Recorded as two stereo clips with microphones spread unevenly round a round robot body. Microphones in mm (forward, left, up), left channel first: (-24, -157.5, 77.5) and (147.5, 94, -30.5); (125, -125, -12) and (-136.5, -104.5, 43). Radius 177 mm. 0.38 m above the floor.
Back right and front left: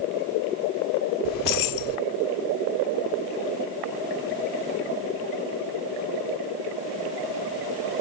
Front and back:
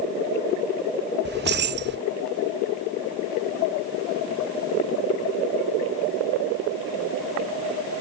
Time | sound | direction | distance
1.2 | keys jangling | 135° right | 0.7 m